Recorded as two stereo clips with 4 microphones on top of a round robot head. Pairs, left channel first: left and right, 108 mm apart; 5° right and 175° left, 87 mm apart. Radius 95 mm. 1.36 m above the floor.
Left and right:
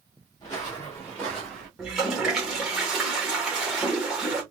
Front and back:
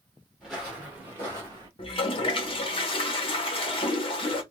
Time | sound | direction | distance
0.4 | footsteps | 75° left | 1.4 m
1.8 | a toilet flushing | 5° right | 0.9 m